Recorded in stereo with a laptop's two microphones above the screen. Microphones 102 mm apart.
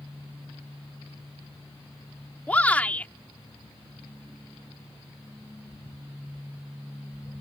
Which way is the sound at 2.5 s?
15° left (ahead or behind).